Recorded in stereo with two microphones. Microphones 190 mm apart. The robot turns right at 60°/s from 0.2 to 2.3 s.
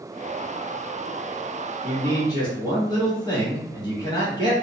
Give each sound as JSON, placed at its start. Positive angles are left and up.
{"t": 1.8, "sound": "a man speaking", "side_deg": 20, "distance_m": 1.0}